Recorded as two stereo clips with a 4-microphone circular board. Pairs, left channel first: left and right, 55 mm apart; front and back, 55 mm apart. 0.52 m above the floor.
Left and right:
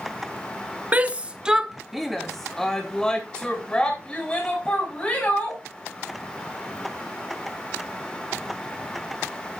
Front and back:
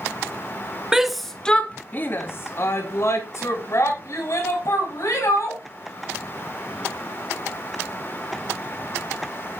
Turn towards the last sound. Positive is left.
turn(degrees=20)